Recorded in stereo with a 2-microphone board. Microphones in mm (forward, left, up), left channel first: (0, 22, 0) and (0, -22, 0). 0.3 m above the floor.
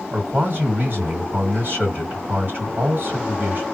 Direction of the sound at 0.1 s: 50° right (ahead or behind).